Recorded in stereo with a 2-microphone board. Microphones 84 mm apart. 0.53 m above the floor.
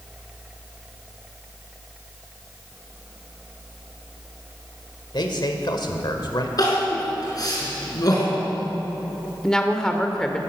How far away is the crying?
About 4.5 m.